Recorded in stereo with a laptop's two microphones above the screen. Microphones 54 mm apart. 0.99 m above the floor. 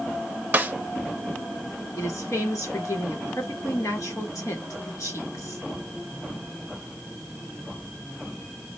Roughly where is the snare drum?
Right.